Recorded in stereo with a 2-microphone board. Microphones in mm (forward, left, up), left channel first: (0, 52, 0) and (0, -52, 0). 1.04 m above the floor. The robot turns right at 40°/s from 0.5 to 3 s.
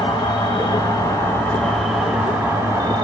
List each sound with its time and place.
0.0 s an insect: 125° left, 1.5 m; by 3.0 s 135° right, 1.5 m